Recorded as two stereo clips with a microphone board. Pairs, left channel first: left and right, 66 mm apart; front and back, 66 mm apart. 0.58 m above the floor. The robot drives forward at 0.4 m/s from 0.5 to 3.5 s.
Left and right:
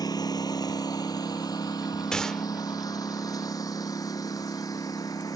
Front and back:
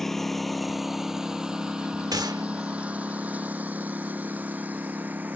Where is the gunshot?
170° left.